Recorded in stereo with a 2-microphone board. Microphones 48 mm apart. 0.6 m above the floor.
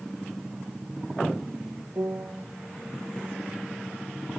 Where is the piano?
75° right (ahead or behind), 1.5 m.